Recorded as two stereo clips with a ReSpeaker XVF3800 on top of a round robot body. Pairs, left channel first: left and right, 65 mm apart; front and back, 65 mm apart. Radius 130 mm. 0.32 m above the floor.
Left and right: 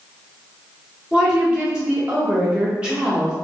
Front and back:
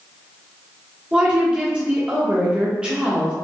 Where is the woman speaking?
135° right, 1.2 m.